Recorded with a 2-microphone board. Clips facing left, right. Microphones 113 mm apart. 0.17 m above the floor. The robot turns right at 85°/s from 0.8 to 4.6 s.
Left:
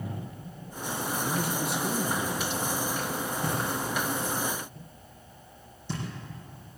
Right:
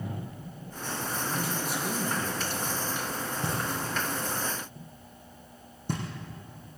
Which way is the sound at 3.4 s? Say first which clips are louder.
Left 1 dB; 25° right (ahead or behind).